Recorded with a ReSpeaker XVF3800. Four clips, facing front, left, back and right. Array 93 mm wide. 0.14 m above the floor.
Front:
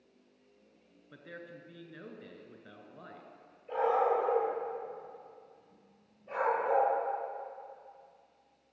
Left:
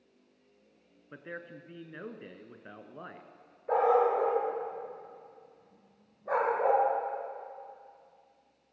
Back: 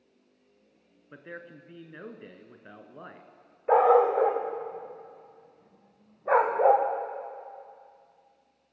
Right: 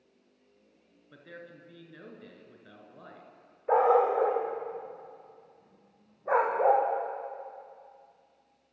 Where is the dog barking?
160° right, 4 m.